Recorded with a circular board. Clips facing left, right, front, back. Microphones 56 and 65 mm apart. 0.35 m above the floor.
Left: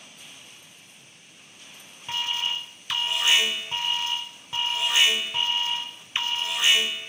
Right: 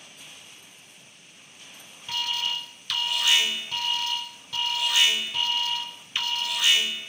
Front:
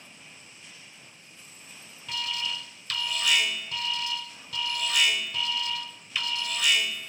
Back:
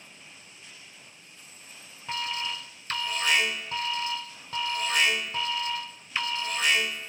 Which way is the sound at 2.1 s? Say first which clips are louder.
Left 1 dB, back 1 dB; 140° left.